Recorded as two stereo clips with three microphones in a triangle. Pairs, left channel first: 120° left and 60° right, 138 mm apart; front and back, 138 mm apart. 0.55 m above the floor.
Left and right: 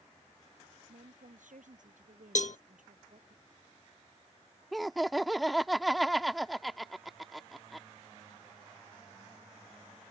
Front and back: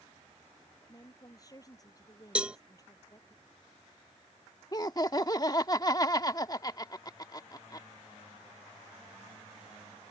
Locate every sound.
0.9 s a woman speaking: 60° right
2.4 s a cowbell: 100° left
4.7 s laughter: 30° left